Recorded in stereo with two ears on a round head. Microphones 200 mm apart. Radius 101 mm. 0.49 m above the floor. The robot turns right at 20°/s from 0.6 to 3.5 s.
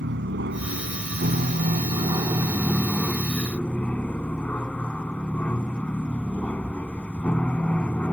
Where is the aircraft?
50° right; by 8.1 s 5° left.